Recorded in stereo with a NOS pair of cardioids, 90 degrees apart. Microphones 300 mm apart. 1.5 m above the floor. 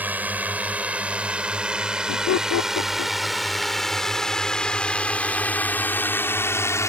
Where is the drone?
5° right; by 6.9 s 10° left.